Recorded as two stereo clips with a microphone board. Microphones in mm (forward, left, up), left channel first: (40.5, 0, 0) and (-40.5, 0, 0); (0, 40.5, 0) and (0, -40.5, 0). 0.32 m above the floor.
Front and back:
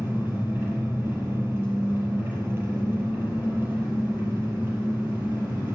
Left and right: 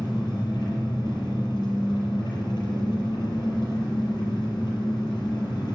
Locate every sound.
0.0 s an engine running: 125° left, 6.5 m